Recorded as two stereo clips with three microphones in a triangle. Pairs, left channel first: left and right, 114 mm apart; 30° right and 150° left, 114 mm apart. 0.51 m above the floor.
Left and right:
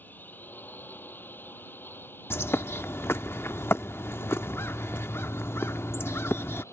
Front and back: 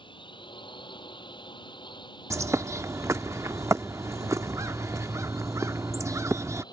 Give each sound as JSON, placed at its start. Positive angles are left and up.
{"t": 0.0, "sound": "a drone", "azimuth_deg": 15}
{"t": 2.3, "sound": "a bird", "azimuth_deg": 130}